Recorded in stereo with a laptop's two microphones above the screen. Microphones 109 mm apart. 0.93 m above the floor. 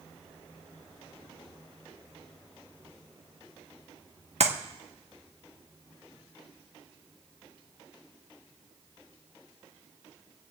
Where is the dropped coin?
I don't hear a dropped coin.